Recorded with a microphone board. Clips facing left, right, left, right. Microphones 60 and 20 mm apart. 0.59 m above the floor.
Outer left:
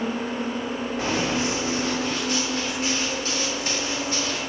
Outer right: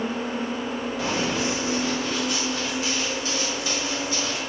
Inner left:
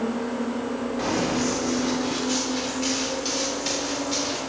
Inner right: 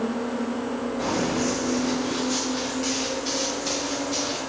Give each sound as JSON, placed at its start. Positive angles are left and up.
{"t": 1.0, "sound": "running footsteps", "side_deg": 40, "distance_m": 5.0}